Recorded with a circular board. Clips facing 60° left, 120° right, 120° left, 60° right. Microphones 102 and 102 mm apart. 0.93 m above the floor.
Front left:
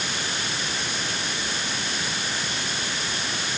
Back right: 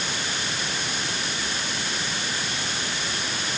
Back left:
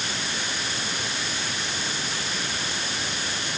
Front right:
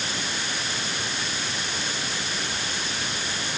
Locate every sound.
Only background noise.